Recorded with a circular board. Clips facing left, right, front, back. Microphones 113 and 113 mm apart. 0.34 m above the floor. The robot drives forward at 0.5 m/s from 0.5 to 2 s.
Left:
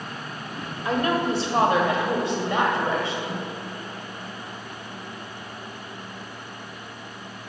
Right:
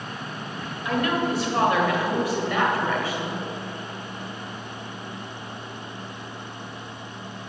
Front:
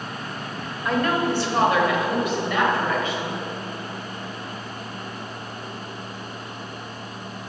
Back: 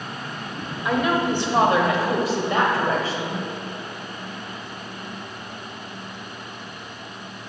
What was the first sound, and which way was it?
A woman speaking, 100° left.